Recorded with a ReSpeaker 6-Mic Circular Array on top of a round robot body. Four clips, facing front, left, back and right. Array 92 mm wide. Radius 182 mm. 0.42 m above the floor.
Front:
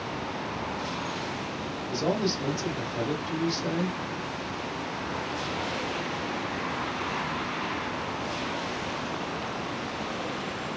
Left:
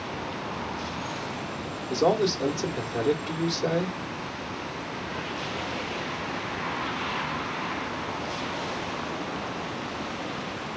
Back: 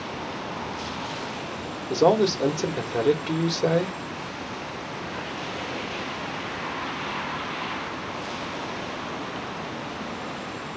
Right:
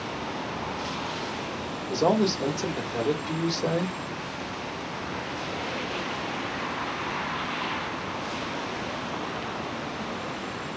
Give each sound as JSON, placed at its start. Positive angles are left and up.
{"t": 1.9, "sound": "a man speaking", "azimuth_deg": 175, "distance_m": 1.9}